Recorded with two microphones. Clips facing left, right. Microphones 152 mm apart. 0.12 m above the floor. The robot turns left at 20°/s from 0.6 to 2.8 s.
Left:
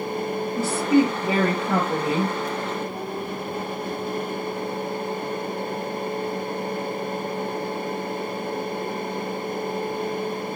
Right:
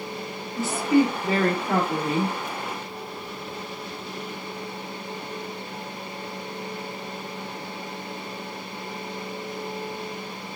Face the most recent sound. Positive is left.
turn(degrees=-10)